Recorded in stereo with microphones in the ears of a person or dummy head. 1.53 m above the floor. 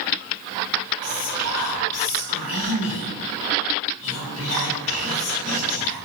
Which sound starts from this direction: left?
Whispering, at 1.0 s.